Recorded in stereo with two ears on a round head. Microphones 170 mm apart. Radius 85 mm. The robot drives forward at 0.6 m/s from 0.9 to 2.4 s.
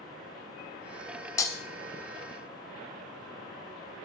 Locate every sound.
1.4 s breaking glass: 15° left (ahead or behind), 0.6 m